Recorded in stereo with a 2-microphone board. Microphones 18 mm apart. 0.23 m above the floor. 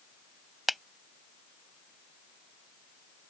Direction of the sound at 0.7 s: 5° right (ahead or behind).